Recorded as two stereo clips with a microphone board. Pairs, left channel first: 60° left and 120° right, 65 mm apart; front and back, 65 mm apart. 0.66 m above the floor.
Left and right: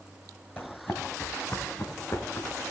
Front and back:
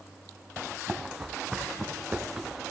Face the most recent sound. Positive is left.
turn(degrees=100)